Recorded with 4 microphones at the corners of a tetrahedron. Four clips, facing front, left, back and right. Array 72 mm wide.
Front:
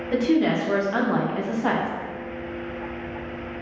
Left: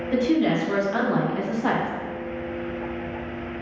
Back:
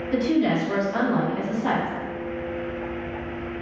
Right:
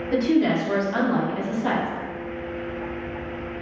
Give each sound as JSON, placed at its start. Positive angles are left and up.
{"t": 0.1, "sound": "a woman speaking", "azimuth_deg": -25, "distance_m": 1.1}